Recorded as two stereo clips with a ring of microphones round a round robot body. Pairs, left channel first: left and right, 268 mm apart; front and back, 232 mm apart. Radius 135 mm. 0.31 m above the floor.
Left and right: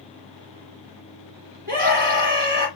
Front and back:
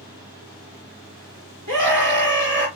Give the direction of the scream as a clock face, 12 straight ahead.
5 o'clock.